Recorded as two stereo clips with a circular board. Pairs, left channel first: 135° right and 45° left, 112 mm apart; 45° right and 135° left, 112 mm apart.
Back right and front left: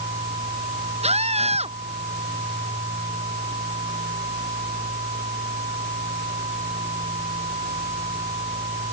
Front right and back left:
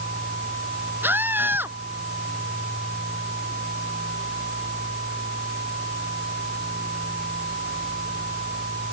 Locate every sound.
1.0 s a scream: 65° left